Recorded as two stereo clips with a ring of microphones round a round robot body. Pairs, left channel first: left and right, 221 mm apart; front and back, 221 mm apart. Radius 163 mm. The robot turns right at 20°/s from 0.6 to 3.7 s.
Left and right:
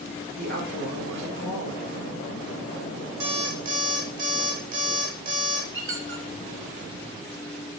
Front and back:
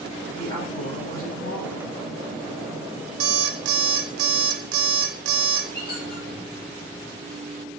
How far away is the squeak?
About 1.5 m.